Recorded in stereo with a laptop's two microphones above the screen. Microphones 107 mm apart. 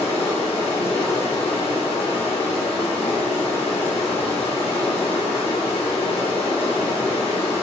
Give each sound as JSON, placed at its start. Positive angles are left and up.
{"t": 0.0, "sound": "running water", "side_deg": 80, "distance_m": 1.4}